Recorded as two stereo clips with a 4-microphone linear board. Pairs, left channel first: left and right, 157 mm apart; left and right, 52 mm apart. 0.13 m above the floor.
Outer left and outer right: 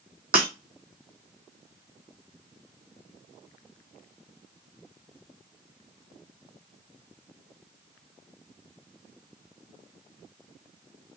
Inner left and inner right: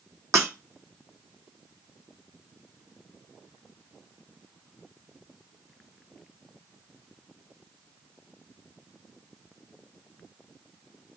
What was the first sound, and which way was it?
Breaking glass, 70° right (ahead or behind).